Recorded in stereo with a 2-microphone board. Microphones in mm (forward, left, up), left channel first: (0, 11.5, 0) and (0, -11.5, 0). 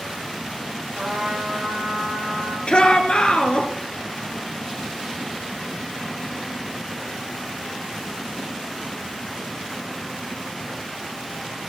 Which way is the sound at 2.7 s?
50° left (ahead or behind).